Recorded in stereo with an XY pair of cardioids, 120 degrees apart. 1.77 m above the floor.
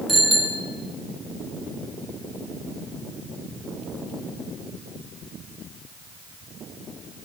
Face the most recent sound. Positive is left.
turn(degrees=-10)